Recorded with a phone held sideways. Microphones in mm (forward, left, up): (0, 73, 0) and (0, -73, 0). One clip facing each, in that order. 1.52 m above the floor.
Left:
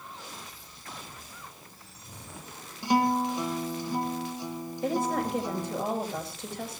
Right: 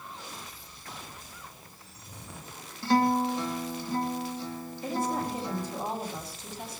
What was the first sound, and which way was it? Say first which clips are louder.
A guitar: right 1 dB; 15° left (ahead or behind).